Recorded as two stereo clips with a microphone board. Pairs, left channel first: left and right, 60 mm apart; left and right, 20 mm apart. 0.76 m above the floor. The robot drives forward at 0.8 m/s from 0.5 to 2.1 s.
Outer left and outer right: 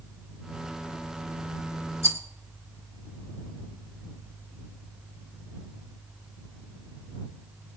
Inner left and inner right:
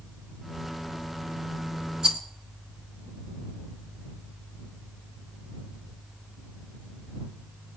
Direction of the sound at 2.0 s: 50° right (ahead or behind).